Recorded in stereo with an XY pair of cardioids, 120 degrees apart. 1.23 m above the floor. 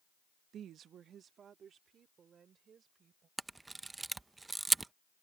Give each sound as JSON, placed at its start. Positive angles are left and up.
{"t": 0.5, "sound": "a woman speaking", "azimuth_deg": -65}
{"t": 3.4, "sound": "a camera shutter", "azimuth_deg": -15}